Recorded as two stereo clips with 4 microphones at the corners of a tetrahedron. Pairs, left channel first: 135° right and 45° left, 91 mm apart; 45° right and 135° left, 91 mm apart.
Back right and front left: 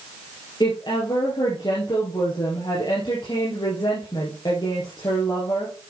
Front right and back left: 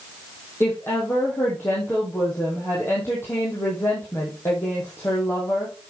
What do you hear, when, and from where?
0.6 s a woman speaking: 105° right, 2.5 m